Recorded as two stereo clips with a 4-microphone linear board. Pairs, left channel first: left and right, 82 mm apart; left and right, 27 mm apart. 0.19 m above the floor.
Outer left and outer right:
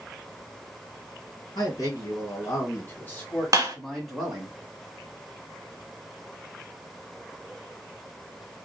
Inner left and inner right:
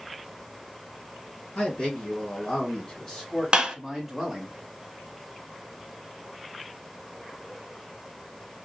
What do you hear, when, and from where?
1.6 s a man speaking: 45° left (ahead or behind), 2 m; by 4.5 s 10° right (ahead or behind), 1.4 m
3.5 s a clap: 40° right (ahead or behind), 1.1 m